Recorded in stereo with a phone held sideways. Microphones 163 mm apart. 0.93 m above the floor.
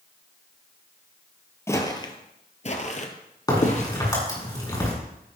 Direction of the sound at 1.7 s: 15° left (ahead or behind).